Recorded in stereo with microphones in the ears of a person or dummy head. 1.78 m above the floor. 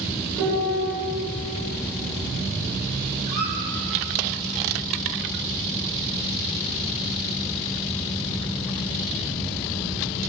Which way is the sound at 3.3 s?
60° right (ahead or behind).